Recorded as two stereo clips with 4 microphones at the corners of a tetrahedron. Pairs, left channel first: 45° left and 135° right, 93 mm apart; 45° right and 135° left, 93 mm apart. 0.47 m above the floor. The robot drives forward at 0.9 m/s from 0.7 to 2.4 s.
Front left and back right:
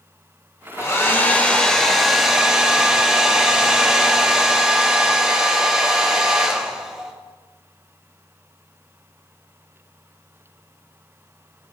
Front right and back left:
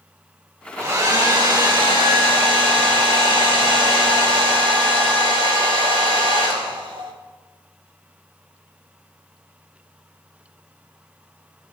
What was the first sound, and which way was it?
A hair dryer, 90° left.